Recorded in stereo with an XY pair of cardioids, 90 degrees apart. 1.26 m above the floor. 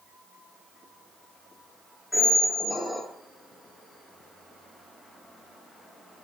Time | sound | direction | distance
2.1 | a squeak | 15° left | 0.5 m